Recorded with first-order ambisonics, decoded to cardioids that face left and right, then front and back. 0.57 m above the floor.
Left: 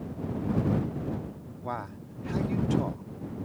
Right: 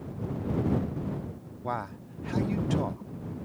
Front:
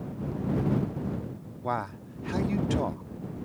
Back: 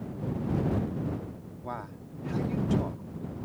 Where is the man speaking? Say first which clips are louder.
Right 2 dB, front 8 dB; 25° right.